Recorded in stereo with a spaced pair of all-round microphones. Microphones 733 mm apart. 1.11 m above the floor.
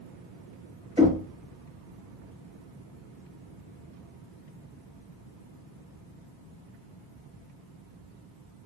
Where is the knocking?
5° right (ahead or behind), 1.4 m.